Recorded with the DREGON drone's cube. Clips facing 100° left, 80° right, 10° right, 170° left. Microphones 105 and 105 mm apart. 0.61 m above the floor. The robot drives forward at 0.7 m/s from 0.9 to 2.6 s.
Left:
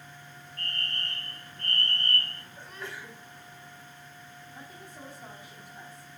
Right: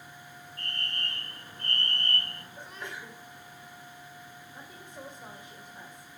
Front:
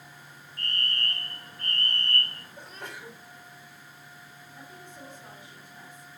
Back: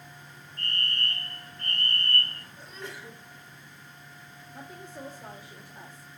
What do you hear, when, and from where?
0.6 s a fire alarm: 20° right, 2.5 m; by 2.5 s 40° right, 1.9 m
2.6 s a sneeze: 10° right, 2.5 m
4.5 s a woman speaking: 150° right, 1.9 m